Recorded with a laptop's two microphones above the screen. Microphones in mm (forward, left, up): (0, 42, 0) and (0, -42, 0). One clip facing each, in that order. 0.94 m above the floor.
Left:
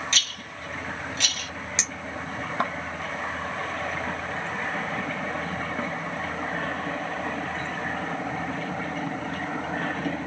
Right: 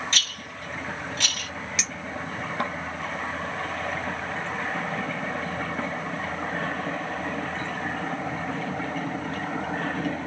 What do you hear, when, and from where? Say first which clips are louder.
0.1 s a rattle: even; 45° right (ahead or behind), 1.2 m
1.8 s a clink: right 1 dB; 25° left (ahead or behind), 0.7 m